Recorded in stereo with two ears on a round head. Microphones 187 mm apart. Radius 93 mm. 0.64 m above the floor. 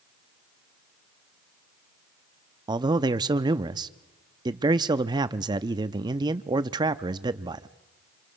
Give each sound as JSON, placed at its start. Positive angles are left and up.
{"t": 2.7, "sound": "a man speaking", "side_deg": -20, "distance_m": 0.6}